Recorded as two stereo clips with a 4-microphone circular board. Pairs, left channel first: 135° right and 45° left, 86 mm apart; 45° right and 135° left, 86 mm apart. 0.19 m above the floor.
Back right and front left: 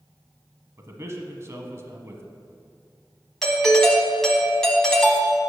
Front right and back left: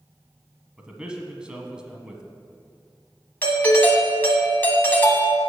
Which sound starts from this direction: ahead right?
A doorbell, at 3.4 s.